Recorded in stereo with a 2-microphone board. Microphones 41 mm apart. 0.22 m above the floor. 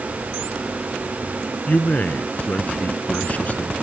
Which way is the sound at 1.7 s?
40° left (ahead or behind).